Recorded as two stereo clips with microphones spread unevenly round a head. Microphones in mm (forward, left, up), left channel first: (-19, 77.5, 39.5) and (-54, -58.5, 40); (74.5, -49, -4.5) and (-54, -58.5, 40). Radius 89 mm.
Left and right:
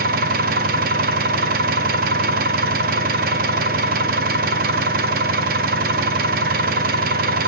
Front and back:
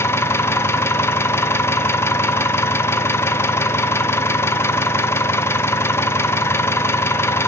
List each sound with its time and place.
0.0 s an engine running: 70° right, 0.8 m